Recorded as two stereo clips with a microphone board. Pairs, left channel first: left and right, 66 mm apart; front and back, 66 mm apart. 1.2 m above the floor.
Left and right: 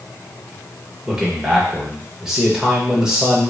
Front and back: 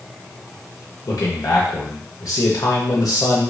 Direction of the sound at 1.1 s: 10° right.